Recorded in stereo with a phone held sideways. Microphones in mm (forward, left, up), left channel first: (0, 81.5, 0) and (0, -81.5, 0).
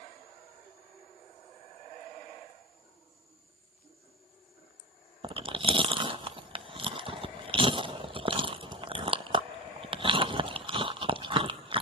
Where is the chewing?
35° right (ahead or behind), 0.7 m.